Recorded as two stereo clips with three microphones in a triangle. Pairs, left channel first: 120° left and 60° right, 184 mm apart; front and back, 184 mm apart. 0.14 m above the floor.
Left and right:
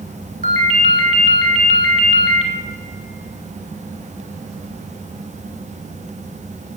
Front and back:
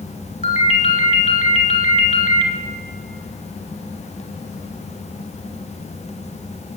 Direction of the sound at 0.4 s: 35° right.